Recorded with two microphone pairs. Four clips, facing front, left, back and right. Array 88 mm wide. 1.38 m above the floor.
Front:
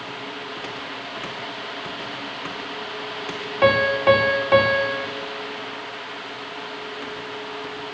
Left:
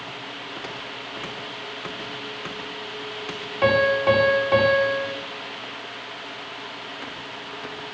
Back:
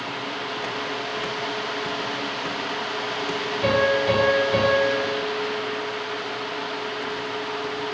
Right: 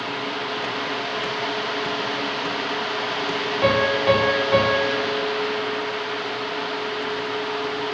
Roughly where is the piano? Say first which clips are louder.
Left 1 dB, front 4 dB; ahead.